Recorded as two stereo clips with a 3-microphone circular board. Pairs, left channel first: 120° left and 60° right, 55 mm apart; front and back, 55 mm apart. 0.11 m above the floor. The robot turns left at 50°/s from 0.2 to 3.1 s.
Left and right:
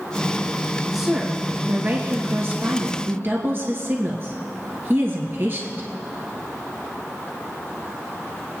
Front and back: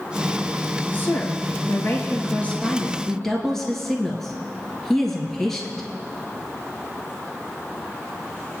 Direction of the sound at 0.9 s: 25° left.